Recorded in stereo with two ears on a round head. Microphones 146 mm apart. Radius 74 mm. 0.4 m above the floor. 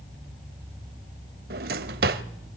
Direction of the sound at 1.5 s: 60° right (ahead or behind).